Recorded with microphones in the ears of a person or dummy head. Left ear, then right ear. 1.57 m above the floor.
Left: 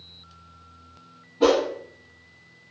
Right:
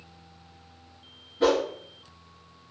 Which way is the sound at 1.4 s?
10° right (ahead or behind).